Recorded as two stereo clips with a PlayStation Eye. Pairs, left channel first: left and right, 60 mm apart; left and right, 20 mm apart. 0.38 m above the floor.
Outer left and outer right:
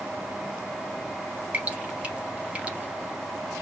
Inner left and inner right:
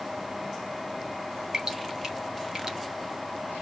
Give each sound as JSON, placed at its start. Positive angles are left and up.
{"t": 1.5, "sound": "dripping", "side_deg": -25, "distance_m": 0.9}